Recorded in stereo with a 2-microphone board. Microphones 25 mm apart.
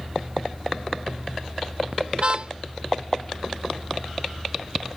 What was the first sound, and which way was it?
A car horn, 50° right (ahead or behind).